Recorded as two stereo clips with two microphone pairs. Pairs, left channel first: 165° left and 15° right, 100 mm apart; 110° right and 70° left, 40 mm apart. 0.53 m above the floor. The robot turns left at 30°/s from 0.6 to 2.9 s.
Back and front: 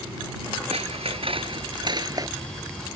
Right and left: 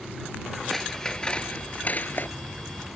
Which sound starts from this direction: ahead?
Scissors, at 0.7 s.